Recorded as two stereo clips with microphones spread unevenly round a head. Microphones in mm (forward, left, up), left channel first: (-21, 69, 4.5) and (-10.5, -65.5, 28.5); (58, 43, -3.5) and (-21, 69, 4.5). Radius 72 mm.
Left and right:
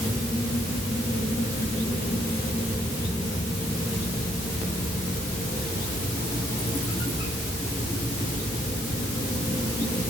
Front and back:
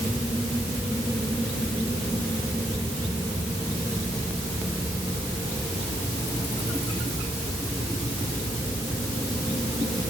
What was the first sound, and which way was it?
Only background noise.